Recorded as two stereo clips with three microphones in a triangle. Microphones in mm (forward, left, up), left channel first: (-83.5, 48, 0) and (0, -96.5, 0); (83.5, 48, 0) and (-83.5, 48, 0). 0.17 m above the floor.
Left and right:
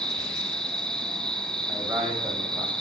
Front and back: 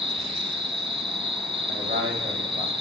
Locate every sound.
0.0 s an insect: 155° right, 1.5 m
1.7 s a man speaking: 150° right, 9.5 m